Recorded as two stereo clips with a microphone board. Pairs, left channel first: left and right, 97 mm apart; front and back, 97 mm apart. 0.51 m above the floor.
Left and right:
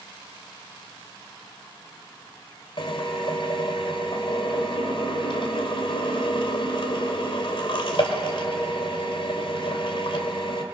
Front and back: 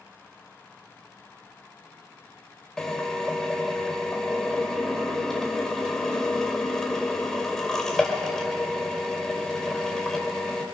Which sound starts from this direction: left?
A drill, at 2.8 s.